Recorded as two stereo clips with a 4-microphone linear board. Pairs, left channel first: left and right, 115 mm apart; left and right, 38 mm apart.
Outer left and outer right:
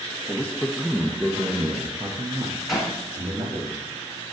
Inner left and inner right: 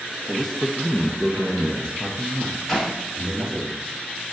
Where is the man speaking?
15° left (ahead or behind), 1.1 m; by 3.7 s 45° right (ahead or behind), 2.5 m.